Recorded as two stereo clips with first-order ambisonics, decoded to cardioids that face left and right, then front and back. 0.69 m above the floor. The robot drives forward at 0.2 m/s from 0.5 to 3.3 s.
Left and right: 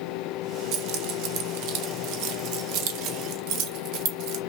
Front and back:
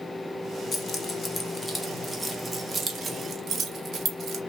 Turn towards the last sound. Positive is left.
turn(degrees=-115)